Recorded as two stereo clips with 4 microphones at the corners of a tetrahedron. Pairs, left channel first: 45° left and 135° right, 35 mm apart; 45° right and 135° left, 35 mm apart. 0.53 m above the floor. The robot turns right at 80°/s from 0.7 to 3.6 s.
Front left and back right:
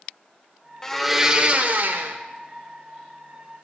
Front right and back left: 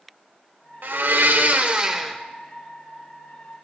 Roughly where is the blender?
Behind left.